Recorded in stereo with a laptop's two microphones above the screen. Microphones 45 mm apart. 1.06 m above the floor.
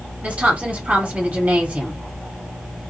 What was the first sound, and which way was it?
A woman speaking, 35° right (ahead or behind).